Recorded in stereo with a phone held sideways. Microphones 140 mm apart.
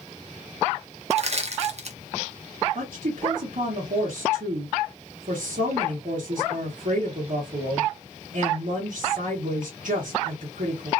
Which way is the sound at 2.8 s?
80° right.